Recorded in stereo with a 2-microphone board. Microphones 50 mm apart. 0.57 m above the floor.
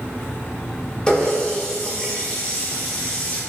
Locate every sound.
1.1 s a running tap: 20° left (ahead or behind), 0.8 m